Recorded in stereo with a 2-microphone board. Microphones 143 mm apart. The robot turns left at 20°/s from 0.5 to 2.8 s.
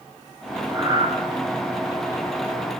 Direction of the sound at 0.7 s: 25° right (ahead or behind).